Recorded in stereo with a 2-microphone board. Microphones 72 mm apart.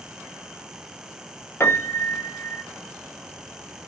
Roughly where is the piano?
Left.